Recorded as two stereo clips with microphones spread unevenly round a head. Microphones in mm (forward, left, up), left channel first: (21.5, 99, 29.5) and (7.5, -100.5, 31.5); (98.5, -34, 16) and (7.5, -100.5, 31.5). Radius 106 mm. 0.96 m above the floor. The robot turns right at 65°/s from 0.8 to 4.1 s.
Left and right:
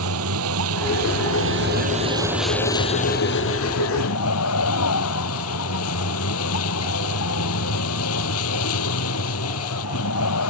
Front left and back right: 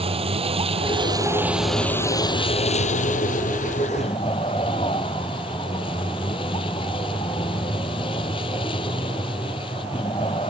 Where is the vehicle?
110° right; by 10.5 s 105° left.